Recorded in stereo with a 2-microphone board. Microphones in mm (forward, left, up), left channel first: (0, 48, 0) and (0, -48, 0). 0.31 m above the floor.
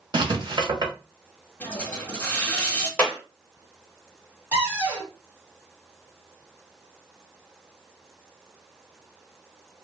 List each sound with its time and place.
0.1 s writing: 50° right (ahead or behind), 0.9 m
1.6 s a hiss: 10° left (ahead or behind), 0.9 m
3.0 s a clap: 15° left (ahead or behind), 0.9 m
4.5 s a cupboard door: 15° right (ahead or behind), 1.9 m